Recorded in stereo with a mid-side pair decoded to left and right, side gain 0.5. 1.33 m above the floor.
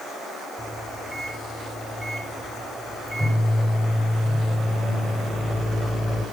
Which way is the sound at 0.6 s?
15° right.